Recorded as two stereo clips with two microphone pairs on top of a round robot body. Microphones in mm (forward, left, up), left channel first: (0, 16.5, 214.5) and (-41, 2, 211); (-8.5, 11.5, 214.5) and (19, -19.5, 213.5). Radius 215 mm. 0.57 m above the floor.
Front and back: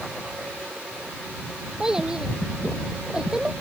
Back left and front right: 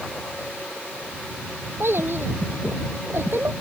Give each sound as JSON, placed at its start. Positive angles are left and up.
{"t": 1.8, "sound": "a child speaking", "azimuth_deg": -80}